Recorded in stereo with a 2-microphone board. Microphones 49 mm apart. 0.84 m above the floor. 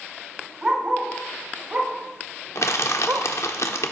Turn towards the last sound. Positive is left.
turn(degrees=75)  # may be behind; listen again after turning